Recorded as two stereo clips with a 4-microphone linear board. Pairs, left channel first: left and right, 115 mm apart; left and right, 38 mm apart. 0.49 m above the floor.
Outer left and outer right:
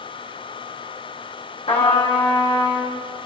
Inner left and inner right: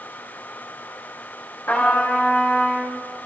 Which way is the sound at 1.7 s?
65° left (ahead or behind).